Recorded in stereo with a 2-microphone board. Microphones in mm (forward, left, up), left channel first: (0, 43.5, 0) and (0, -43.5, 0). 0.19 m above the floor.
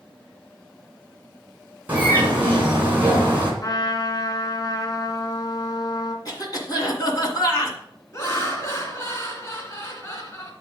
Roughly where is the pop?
I don't hear a pop.